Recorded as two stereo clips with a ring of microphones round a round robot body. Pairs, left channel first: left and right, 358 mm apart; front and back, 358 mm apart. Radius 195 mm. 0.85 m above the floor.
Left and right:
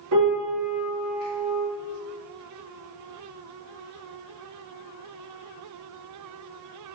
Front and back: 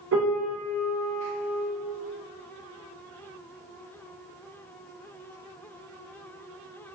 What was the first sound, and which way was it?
A piano, 125° right.